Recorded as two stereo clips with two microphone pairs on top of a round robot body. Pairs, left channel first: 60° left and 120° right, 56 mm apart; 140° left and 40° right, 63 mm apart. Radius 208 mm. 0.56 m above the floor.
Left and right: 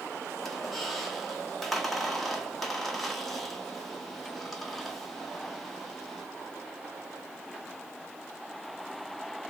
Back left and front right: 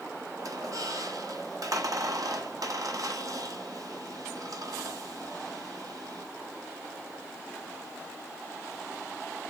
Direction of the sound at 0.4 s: 30° right.